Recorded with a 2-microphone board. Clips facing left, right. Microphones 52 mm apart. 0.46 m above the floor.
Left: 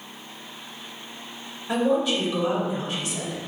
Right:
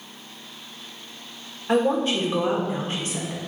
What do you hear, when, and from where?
1.7 s a woman speaking: 35° right (ahead or behind), 1.0 m